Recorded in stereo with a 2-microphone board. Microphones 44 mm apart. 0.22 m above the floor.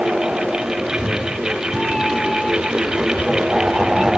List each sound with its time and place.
0.8 s a cat meowing: 20° left (ahead or behind); by 4.2 s centre (ahead or behind)